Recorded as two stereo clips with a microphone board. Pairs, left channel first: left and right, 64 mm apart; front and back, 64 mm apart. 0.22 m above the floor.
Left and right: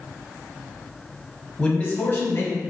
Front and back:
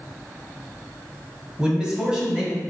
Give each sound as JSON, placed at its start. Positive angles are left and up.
{"t": 1.6, "sound": "a man speaking", "azimuth_deg": 135, "distance_m": 1.0}